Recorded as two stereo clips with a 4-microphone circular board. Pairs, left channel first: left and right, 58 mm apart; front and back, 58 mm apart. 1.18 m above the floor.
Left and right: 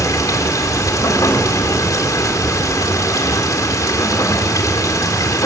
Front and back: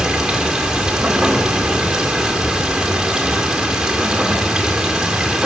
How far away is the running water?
About 2 m.